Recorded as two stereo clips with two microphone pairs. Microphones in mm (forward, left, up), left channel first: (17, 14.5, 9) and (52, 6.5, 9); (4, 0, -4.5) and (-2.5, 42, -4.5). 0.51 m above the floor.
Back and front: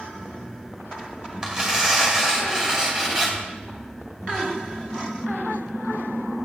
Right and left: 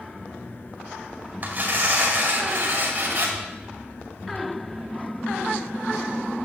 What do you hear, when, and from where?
1.4 s tearing paper: 55° left, 2.5 m